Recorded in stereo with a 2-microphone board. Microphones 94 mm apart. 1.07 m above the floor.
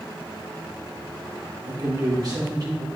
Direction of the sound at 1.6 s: 45° right (ahead or behind).